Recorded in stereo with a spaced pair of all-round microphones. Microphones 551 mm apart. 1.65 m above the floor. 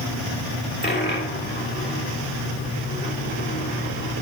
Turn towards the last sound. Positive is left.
turn(degrees=15)  # may be behind; listen again after turning